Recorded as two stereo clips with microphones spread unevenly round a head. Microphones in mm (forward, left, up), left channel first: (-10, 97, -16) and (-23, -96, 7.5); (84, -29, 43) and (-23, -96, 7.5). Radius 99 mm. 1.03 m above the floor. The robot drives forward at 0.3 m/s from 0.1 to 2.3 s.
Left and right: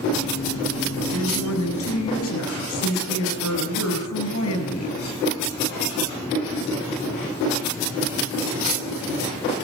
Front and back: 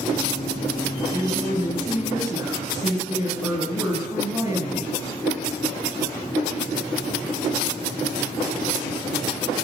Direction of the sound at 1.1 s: 95° left.